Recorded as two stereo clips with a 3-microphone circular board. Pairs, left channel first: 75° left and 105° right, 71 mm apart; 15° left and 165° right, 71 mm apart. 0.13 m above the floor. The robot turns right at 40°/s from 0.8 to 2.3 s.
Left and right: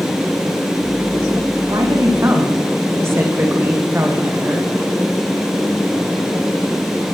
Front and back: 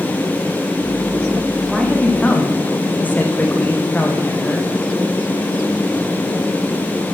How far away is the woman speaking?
About 8 m.